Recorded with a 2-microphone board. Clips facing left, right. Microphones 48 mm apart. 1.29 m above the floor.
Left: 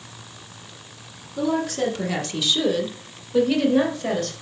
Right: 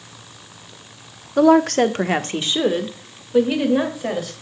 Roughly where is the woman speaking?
Right.